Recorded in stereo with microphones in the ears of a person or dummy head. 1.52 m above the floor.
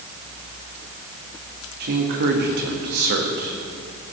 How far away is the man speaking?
About 1.7 m.